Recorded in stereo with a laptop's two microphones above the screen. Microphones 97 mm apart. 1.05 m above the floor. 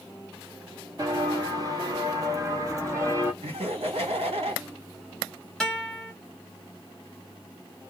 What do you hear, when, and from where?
1.0 s footsteps: 35° right (ahead or behind), 1.3 m; by 3.3 s 25° right (ahead or behind), 1.6 m
3.4 s laughter: 80° right, 1.9 m
5.6 s a guitar: 5° left (ahead or behind), 1.3 m